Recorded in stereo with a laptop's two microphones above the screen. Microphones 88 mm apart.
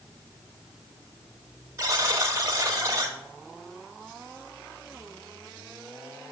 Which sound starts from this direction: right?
A buzzer, at 1.8 s.